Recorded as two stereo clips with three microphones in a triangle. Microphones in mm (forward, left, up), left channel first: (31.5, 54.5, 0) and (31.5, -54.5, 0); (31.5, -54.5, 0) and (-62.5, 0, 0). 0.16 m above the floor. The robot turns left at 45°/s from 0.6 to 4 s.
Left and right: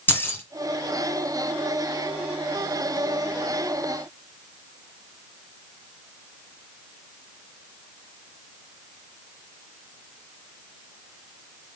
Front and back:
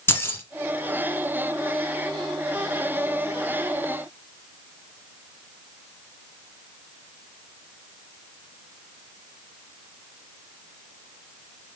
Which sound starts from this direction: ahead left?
Keys jangling, at 0.1 s.